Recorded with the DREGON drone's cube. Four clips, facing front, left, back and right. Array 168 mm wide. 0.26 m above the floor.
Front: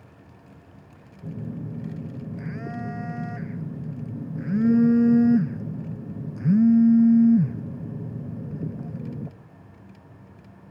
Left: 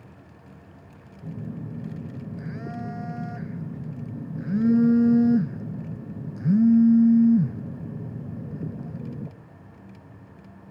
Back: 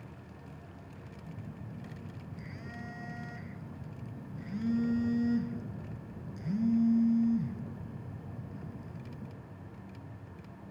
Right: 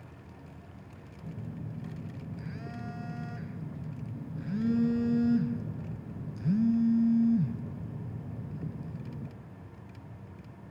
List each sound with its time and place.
1.2 s a phone buzzing: 35° left, 0.9 m